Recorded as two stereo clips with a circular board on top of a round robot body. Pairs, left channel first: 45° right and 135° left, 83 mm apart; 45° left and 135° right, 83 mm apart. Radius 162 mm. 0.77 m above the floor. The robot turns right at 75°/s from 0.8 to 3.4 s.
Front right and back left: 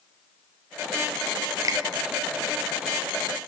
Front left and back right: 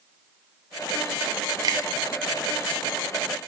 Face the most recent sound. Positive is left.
turn(degrees=-45)